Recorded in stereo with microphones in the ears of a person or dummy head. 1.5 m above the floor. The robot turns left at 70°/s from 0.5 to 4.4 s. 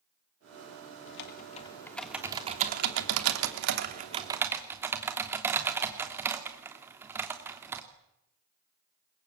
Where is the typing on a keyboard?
70° left, 3 m; by 7.8 s 165° right, 3 m.